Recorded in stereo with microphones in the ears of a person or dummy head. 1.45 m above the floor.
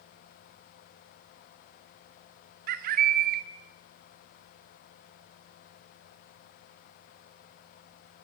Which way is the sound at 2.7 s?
50° right (ahead or behind).